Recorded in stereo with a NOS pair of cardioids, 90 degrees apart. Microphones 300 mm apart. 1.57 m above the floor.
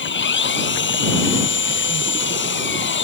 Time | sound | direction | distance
0.0 | an engine running | 40° left | ?